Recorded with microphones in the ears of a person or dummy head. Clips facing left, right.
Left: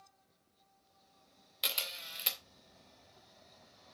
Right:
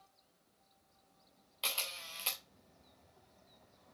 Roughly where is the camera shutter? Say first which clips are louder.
Left 1 dB; left.